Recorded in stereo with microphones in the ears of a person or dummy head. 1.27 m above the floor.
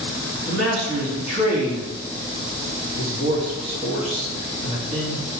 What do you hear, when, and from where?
0.5 s a man speaking: 50° right (ahead or behind), 2.5 m